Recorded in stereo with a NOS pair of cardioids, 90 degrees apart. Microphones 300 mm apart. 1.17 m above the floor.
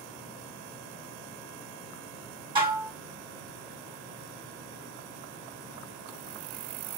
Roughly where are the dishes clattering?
Ahead.